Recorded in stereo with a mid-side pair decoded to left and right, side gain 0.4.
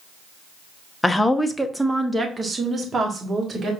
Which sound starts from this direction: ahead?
A woman speaking, at 1.0 s.